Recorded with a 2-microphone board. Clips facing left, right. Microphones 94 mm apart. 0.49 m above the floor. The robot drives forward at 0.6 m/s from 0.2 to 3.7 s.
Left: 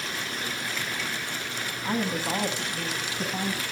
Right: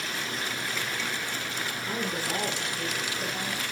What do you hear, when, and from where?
1.8 s a woman speaking: 60° left (ahead or behind), 4.5 m; by 3.6 s 70° left (ahead or behind), 4.5 m